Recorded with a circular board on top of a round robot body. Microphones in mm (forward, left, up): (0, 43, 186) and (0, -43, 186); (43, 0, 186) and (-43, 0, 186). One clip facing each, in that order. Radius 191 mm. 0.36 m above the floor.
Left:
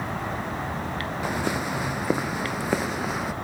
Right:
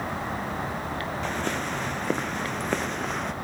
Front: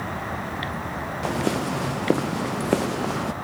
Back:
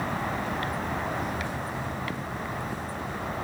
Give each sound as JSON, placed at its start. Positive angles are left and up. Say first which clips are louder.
{"t": 1.2, "sound": "footsteps", "louder": "left 4 dB, front 7 dB", "azimuth_deg": 10}